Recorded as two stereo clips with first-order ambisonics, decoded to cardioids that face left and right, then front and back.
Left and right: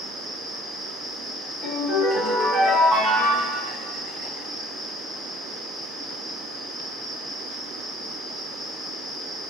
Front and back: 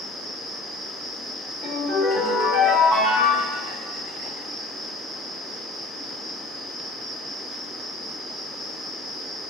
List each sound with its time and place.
0.0 s an insect: 150° right, 1.6 m
1.6 s a ringtone: 175° right, 1.9 m